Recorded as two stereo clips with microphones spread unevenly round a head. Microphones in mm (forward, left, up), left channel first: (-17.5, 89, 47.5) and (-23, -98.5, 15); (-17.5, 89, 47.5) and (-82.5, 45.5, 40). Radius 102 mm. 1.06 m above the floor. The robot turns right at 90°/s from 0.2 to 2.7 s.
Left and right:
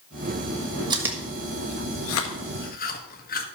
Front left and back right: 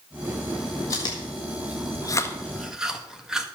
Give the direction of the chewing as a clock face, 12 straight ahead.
1 o'clock.